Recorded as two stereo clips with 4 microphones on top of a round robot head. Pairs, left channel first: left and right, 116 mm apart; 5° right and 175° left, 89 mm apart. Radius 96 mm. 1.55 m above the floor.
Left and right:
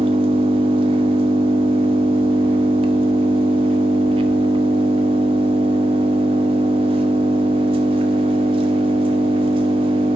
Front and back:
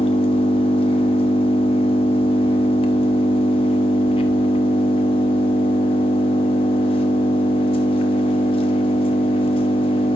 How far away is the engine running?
About 1.0 m.